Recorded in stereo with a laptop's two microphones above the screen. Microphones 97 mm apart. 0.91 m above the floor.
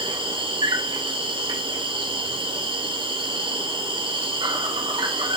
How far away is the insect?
About 0.9 m.